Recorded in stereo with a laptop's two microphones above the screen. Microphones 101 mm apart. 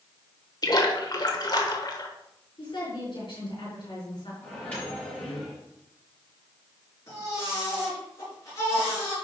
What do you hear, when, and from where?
0.6 s a splash: 40° left (ahead or behind), 1.1 m
2.6 s a woman speaking: 55° left (ahead or behind), 4.5 m
4.4 s a microwave: 15° left (ahead or behind), 5 m
7.1 s a baby crying: 30° left (ahead or behind), 4.5 m